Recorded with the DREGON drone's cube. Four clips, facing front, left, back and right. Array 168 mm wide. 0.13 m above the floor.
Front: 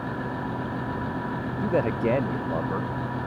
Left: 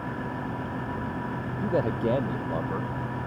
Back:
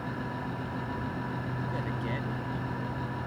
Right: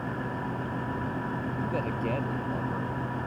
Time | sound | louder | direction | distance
1.6 | a man speaking | left 8 dB, front 15 dB | 30° left | ?